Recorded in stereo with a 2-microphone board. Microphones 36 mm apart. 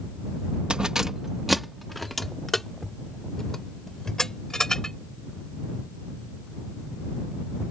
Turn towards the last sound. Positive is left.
turn(degrees=10)  # may be behind; listen again after turning